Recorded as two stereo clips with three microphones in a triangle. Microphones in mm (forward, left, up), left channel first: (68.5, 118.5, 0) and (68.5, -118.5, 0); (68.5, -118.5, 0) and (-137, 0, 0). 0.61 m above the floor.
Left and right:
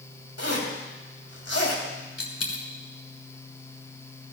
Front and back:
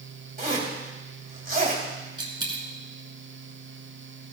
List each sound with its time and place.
0.4 s a zipper: 100° left, 2.5 m
2.2 s a dropped coin: 80° left, 1.6 m